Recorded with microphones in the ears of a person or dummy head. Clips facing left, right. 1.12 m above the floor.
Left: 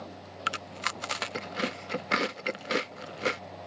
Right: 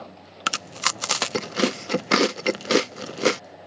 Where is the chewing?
55° right (ahead or behind).